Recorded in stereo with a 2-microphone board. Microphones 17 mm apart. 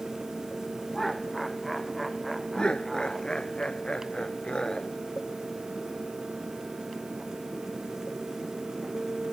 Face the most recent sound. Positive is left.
turn(degrees=55)  # may be behind; listen again after turning